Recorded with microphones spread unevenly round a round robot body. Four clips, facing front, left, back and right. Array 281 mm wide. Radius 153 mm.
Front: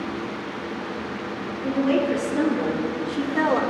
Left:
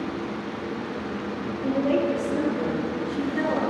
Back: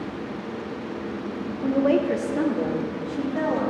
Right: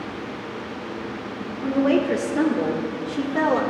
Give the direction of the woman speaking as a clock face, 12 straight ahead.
4 o'clock.